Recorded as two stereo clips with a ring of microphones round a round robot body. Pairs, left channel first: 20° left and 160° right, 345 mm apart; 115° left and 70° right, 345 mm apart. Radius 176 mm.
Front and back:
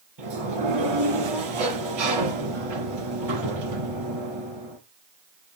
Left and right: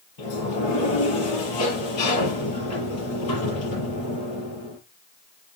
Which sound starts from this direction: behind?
A sliding door, at 0.2 s.